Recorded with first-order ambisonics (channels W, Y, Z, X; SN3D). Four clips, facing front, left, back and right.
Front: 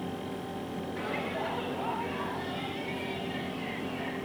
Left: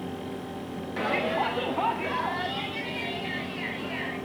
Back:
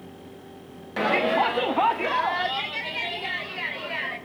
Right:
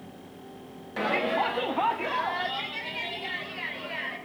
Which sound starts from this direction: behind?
A shout, at 1.0 s.